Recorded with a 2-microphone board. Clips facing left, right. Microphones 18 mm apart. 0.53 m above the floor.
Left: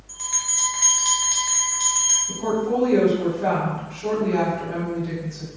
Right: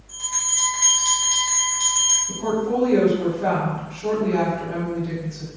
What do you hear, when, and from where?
0.1 s a bell: 35° left (ahead or behind), 1.1 m
2.3 s a woman speaking: 25° left (ahead or behind), 1.6 m